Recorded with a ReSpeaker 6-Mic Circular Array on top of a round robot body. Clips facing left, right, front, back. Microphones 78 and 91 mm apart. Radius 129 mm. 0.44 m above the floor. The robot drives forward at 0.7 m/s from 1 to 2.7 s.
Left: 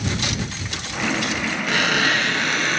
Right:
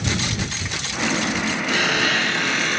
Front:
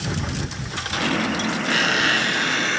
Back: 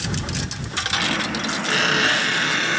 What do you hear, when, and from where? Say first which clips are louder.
1.7 s a squeak: left 2 dB, back 2 dB; 120° left, 3 m; by 2.8 s 135° left, 3.5 m